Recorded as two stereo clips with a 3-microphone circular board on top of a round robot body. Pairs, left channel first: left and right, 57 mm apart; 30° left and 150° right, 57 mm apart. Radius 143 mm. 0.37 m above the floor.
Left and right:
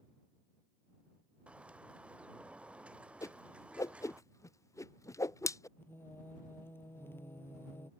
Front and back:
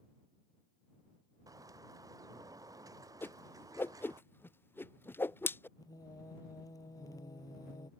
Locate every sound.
1.5 s a bird: 160° right
3.2 s a whoosh: 75° left
5.8 s singing: 40° left